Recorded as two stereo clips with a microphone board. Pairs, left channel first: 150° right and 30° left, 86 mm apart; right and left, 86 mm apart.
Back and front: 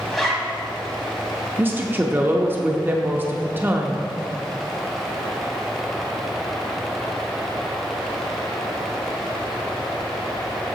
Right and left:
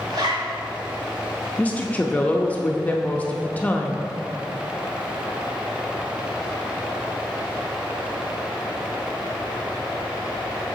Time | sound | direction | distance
0.1 | a zipper | 120° left | 1.3 m
1.6 | a woman speaking | 25° right | 0.5 m